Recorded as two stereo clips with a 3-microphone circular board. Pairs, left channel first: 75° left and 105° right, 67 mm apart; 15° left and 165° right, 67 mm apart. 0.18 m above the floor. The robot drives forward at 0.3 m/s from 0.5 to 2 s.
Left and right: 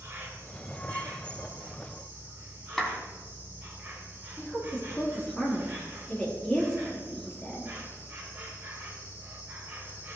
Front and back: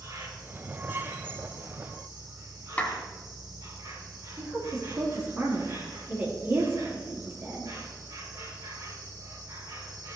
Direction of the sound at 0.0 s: 160° right.